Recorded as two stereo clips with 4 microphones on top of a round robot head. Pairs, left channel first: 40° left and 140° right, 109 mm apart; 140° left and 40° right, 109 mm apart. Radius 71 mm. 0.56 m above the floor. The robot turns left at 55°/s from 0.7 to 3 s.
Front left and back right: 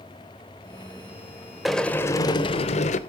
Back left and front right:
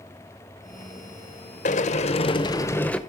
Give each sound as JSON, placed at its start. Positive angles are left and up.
{"t": 1.6, "sound": "a sliding door", "azimuth_deg": 130, "distance_m": 0.9}